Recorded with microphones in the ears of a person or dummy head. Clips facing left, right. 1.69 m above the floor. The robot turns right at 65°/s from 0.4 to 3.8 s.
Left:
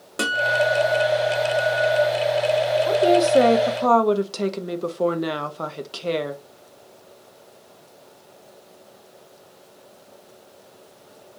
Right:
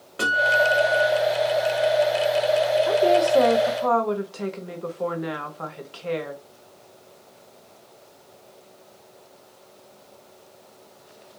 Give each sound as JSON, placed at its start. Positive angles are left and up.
{"t": 0.2, "sound": "a guitar", "azimuth_deg": 135, "distance_m": 1.2}
{"t": 2.9, "sound": "a woman speaking", "azimuth_deg": 10, "distance_m": 0.7}